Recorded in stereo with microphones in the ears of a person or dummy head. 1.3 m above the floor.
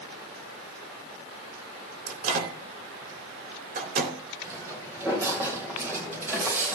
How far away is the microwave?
About 3.5 m.